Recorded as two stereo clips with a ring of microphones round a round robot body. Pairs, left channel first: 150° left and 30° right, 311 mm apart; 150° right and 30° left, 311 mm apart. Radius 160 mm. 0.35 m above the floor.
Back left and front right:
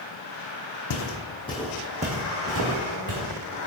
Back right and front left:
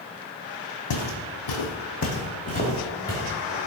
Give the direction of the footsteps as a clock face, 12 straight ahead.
6 o'clock.